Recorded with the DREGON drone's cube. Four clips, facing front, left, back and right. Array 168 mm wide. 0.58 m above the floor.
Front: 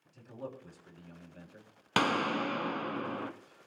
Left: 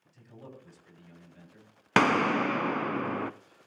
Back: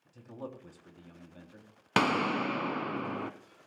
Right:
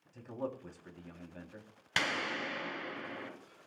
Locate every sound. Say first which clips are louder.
0.1 s a man speaking: right 9 dB, back 1 dB; 110° right, 4 m
2.0 s a gunshot: left 13 dB, back 2 dB; 105° left, 0.7 m